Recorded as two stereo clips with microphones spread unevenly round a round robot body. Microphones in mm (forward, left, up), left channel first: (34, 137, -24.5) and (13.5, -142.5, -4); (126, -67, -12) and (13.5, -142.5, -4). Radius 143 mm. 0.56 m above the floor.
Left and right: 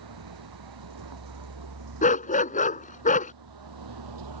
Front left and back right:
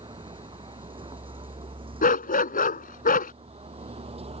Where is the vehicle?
95° right; by 4.4 s 105° right.